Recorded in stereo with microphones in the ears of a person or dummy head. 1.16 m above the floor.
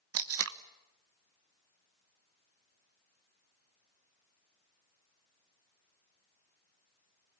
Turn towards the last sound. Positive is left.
turn(degrees=-70)  # may be behind; listen again after turning